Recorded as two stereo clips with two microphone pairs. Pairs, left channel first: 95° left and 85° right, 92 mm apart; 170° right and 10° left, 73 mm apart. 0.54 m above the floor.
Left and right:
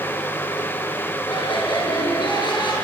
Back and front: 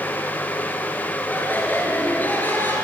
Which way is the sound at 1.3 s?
125° left.